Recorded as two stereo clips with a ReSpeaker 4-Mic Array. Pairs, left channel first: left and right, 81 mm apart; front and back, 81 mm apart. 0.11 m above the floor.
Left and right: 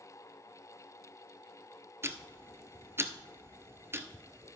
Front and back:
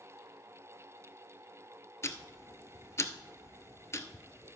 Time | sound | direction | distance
2.0 | ticking | 40° right | 0.7 m